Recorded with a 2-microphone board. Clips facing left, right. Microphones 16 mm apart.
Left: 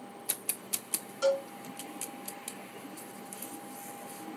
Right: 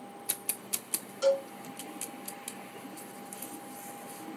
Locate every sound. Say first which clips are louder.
1.2 s a cowbell: right 2 dB; 5° left (ahead or behind), 2.5 m